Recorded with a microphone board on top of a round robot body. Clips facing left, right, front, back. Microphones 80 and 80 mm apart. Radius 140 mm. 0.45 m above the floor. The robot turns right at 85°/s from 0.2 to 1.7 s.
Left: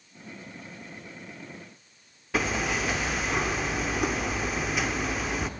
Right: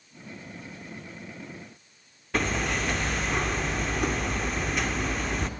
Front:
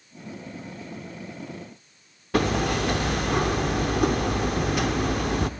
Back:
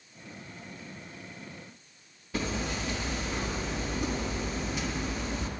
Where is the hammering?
Straight ahead, 1.2 m.